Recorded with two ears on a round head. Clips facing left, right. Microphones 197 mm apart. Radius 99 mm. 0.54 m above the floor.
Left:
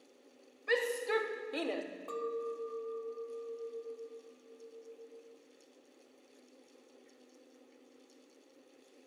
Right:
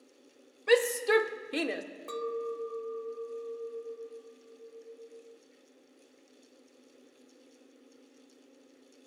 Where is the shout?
70° right (ahead or behind), 2 m; by 1.8 s 15° right (ahead or behind), 1.3 m.